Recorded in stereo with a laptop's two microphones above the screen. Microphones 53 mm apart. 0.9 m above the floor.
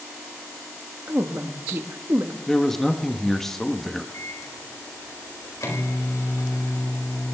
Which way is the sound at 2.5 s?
5° left (ahead or behind).